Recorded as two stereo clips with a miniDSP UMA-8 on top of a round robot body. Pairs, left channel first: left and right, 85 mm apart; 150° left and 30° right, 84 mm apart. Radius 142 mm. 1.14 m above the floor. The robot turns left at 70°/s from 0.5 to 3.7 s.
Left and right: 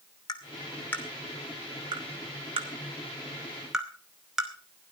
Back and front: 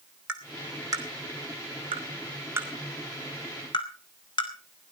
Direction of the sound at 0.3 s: 50° left.